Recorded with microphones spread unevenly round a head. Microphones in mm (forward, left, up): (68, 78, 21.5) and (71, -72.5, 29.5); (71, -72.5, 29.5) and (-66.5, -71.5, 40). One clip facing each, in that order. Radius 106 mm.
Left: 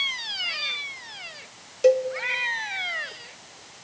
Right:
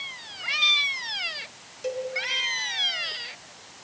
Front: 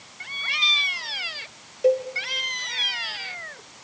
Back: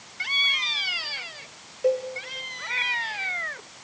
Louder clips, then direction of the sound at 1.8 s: Left 12 dB, front 3 dB; 75° left.